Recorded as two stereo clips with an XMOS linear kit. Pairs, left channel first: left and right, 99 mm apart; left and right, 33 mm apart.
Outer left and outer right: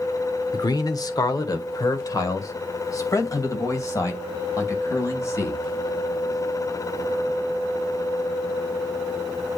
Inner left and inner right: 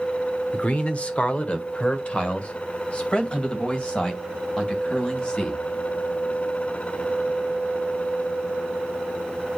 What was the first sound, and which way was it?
A man speaking, 40° left (ahead or behind).